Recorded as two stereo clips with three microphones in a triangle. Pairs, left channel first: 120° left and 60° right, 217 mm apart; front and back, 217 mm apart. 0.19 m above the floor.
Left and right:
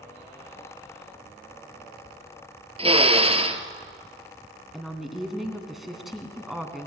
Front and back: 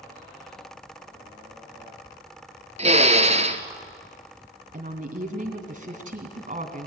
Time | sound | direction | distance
2.8 | a drill | 120° right | 1.3 m
4.7 | a woman speaking | 150° right | 1.9 m